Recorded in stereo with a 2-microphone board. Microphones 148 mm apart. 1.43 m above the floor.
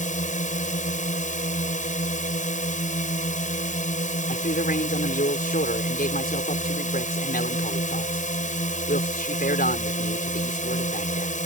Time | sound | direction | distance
0.0 | a drone | 60° left (ahead or behind) | ?
4.3 | a man speaking | 75° left (ahead or behind) | ?